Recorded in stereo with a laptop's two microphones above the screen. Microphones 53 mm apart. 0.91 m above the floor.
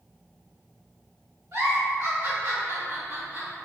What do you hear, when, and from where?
1.5 s a giggle: 65° right (ahead or behind), 1.6 m